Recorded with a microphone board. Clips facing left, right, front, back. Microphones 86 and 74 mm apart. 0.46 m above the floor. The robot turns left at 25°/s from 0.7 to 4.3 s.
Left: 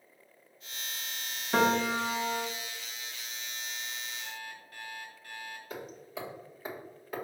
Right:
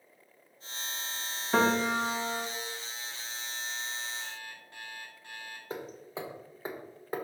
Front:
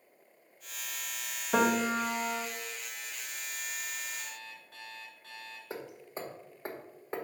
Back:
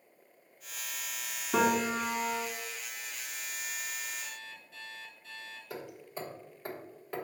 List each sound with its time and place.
1.5 s a piano: 5° right, 1.7 m; by 2.5 s 30° right, 1.7 m
4.2 s an alarm clock: 20° right, 3 m; by 5.6 s 25° right, 3 m
5.7 s hammering: 50° right, 1.4 m